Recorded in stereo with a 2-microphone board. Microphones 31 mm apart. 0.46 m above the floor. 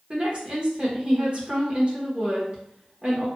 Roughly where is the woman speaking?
Right.